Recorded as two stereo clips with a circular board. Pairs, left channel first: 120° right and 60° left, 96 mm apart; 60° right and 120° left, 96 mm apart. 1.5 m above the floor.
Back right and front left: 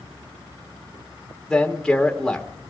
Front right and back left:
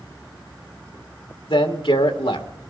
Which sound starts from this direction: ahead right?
A man speaking, at 1.5 s.